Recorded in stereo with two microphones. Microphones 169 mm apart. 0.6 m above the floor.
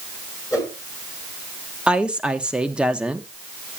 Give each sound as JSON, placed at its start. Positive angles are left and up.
{"t": 0.5, "sound": "a whoosh", "side_deg": 20, "distance_m": 8.5}
{"t": 1.9, "sound": "a woman speaking", "side_deg": -5, "distance_m": 0.9}